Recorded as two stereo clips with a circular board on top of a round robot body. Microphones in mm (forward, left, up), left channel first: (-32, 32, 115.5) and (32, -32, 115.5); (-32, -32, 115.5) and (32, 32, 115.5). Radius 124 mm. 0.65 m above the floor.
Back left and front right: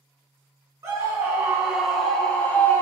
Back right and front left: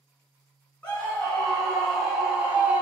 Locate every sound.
0.8 s a scream: 75° right, 1.1 m; by 2.8 s 105° left, 1.1 m